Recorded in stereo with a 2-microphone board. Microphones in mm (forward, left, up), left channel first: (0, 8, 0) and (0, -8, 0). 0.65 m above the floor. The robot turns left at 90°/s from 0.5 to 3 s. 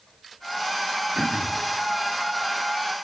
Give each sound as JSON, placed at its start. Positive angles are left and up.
{"t": 1.1, "sound": "throat clearing", "azimuth_deg": -95, "distance_m": 0.6}